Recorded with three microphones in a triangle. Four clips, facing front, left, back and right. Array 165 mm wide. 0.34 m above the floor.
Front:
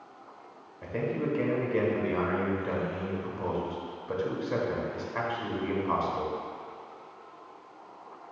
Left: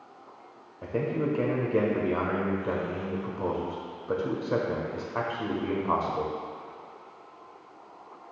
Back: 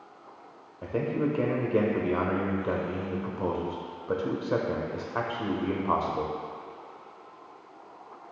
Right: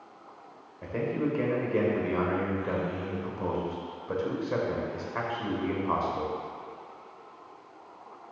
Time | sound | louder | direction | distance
0.8 | a man speaking | left 1 dB, back 3 dB | 150° left | 1.1 m